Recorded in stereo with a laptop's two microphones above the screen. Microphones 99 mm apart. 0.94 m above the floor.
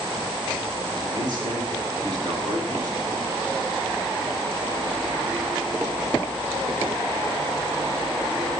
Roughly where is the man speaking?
Right.